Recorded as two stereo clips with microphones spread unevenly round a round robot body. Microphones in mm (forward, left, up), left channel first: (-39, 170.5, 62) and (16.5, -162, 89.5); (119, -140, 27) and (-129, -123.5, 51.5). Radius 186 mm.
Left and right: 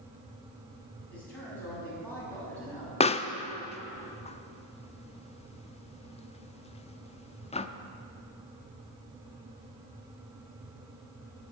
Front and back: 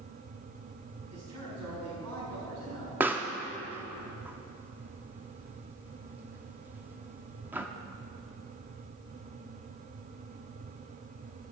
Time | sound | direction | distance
1.1 | a man speaking | 175° right | 5.5 m
3.0 | a pop | 90° left | 0.6 m